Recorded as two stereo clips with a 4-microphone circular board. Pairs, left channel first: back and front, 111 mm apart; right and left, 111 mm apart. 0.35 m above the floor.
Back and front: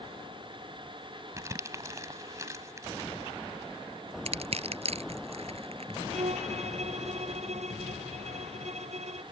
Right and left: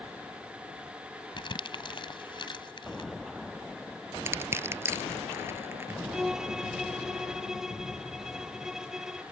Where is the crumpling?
60° right.